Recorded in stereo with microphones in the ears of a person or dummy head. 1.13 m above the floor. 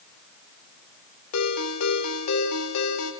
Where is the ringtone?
80° left, 3 m.